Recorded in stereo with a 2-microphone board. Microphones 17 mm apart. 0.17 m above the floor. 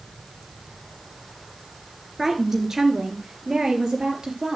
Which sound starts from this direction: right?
A woman speaking, at 2.2 s.